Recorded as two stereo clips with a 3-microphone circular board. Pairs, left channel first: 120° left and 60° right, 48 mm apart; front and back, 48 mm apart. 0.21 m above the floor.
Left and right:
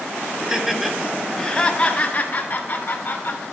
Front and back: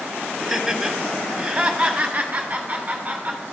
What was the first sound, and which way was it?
Laughter, 110° right.